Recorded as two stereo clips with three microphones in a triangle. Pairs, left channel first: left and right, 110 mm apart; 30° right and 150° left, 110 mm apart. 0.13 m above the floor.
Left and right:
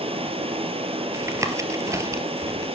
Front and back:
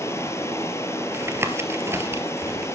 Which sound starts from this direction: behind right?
Tapping, at 1.1 s.